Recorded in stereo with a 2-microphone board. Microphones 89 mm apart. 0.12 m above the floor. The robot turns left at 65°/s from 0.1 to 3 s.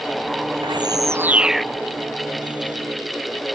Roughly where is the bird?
Behind right.